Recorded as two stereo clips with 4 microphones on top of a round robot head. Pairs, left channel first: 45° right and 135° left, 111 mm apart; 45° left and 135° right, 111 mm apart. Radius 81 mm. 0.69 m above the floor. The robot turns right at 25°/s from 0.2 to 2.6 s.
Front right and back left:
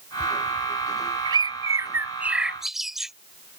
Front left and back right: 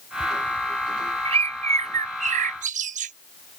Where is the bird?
175° right; by 3.1 s 140° right.